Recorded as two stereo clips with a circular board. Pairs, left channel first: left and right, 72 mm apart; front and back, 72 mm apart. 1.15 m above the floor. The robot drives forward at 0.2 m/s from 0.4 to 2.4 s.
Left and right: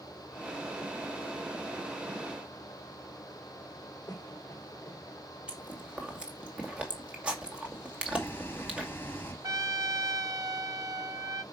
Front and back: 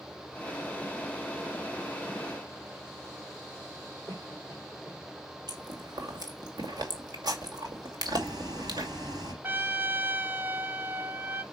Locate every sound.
4.1 s a cough: 145° left, 3.5 m
5.5 s chewing: 165° right, 2.5 m
8.0 s boiling: 160° left, 6 m
9.4 s a trumpet: 120° right, 0.6 m